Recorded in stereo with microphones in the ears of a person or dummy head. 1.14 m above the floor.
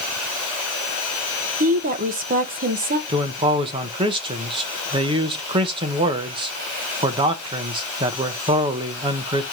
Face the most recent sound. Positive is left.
turn(degrees=-20)  # may be behind; listen again after turning